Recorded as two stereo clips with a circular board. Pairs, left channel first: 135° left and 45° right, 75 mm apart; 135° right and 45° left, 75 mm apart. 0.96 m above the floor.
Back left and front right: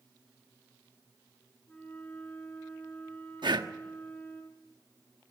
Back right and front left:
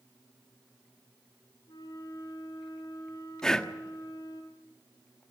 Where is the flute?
155° right, 4 m.